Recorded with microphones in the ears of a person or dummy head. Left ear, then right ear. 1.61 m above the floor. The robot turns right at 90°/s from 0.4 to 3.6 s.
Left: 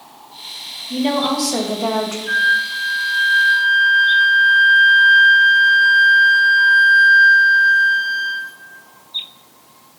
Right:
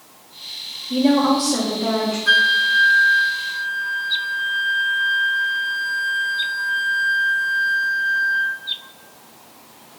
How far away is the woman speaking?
About 1.6 m.